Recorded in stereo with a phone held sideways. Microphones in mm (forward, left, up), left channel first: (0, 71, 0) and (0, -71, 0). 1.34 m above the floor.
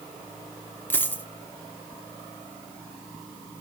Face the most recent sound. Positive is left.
turn(degrees=15)  # may be behind; listen again after turning